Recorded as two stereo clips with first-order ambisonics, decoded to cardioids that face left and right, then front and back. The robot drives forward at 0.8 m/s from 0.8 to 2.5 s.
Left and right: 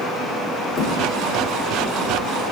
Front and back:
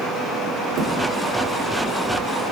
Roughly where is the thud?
Behind left.